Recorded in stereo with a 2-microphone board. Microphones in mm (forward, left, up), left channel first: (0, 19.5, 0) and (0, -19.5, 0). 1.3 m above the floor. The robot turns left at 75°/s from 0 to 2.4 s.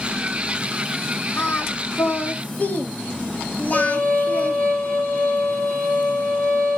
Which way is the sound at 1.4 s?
60° left (ahead or behind).